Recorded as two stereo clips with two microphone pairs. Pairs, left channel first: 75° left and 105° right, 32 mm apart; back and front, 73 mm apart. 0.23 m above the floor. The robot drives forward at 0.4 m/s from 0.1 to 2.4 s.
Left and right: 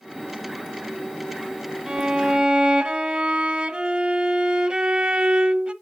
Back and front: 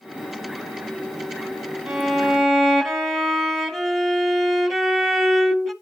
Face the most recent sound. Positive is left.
turn(degrees=-90)